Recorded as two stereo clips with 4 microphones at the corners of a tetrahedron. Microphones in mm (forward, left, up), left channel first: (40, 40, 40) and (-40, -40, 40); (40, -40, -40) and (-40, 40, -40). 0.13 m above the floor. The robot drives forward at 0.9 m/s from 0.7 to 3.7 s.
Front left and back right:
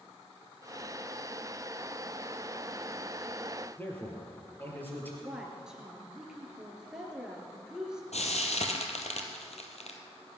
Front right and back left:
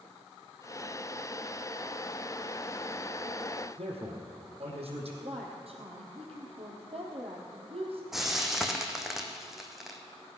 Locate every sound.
3.8 s a man speaking: 115° left, 4 m
5.2 s a woman speaking: 140° left, 3.5 m
8.1 s frying: 50° left, 1.9 m